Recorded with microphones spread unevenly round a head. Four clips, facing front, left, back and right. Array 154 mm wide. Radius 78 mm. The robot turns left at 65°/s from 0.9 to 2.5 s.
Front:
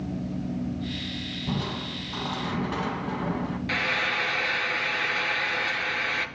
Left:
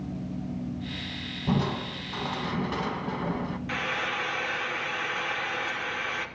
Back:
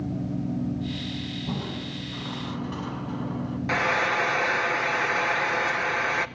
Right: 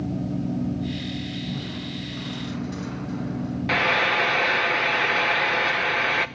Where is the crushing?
90° left, 2.0 m; by 3.6 s 20° left, 2.0 m.